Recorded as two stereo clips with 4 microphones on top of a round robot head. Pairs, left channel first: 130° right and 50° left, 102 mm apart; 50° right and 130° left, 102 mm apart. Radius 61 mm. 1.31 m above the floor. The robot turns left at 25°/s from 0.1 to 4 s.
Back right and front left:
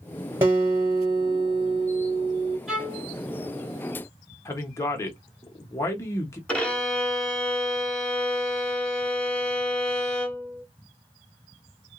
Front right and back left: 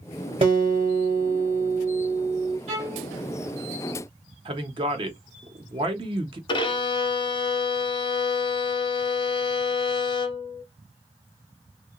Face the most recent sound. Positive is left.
turn(degrees=-50)